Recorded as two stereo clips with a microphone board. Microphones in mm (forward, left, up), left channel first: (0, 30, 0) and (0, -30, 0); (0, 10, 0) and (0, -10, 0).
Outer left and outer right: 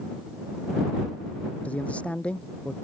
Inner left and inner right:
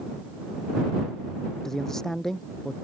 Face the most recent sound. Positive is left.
turn(degrees=20)  # may be behind; listen again after turning